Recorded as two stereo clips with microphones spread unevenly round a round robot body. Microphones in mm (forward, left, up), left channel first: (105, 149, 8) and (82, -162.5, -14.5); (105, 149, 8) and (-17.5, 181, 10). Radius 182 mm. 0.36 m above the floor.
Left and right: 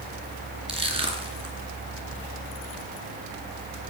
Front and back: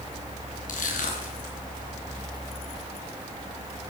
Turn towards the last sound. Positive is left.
turn(degrees=-20)